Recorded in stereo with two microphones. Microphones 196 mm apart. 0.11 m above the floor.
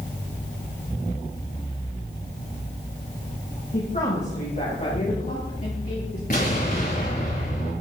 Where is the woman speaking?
40° left (ahead or behind), 7 m; by 6.2 s 45° left (ahead or behind), 8.5 m.